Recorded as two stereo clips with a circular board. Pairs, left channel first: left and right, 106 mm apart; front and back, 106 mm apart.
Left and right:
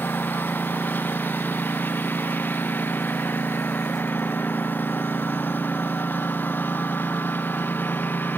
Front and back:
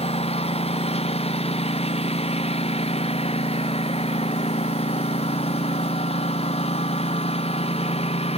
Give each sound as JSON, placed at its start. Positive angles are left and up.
{"t": 0.0, "sound": "a lawn mower", "azimuth_deg": 20}